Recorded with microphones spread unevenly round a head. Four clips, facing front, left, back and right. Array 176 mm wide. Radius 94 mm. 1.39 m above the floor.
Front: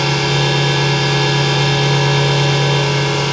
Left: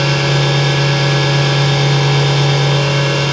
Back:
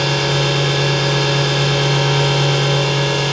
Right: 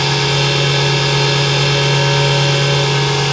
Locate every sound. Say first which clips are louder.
0.0 s a machine running: left 1 dB, front 1 dB; 85° left, 5 m